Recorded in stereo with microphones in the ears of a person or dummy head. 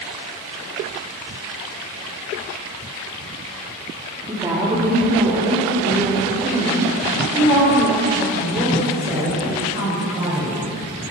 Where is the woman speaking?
20° right (ahead or behind), 3.5 m; by 10.6 s 30° right (ahead or behind), 7.5 m.